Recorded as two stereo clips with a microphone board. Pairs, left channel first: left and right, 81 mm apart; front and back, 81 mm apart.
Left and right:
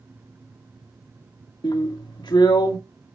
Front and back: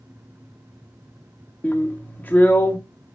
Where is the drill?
65° left, 1.9 m.